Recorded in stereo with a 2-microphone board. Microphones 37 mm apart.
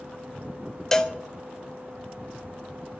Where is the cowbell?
15° left (ahead or behind), 0.9 m.